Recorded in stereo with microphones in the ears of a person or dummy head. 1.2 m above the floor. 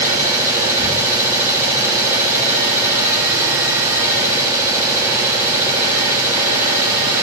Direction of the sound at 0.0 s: 15° right (ahead or behind).